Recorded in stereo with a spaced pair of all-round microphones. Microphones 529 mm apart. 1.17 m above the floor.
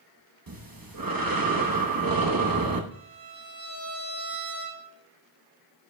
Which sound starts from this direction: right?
Breathing, at 0.5 s.